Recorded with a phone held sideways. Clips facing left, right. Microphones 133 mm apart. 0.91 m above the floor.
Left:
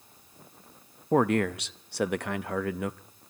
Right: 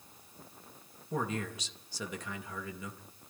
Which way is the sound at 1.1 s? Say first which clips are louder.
Left 12 dB; 65° left (ahead or behind).